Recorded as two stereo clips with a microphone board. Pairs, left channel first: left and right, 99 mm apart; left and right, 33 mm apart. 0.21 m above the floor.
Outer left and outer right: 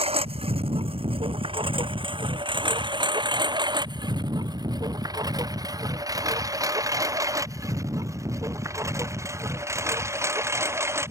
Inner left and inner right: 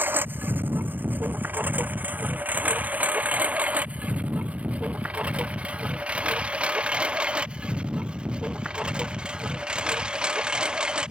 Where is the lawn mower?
85° right; by 11.1 s 30° right (ahead or behind).